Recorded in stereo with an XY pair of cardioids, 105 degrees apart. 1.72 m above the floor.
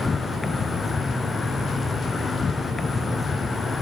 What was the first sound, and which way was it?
An insect, 30° left.